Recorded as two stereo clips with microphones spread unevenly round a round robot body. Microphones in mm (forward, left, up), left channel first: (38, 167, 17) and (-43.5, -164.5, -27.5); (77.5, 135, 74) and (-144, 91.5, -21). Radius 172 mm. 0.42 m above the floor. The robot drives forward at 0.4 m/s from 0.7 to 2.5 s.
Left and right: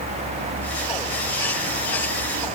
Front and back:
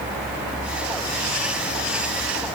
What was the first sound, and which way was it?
Only background noise.